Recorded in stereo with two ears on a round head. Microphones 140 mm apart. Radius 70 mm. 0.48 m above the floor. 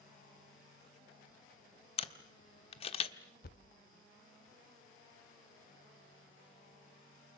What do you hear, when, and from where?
2.0 s a camera shutter: 40° left (ahead or behind), 1.3 m
3.4 s a thud: 65° left (ahead or behind), 0.7 m